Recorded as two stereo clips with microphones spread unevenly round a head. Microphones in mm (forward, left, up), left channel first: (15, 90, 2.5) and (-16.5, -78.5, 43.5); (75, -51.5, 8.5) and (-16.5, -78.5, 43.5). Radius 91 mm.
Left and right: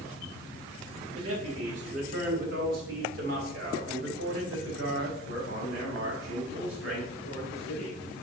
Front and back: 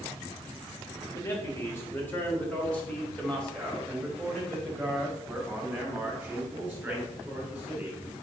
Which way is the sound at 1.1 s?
45° right.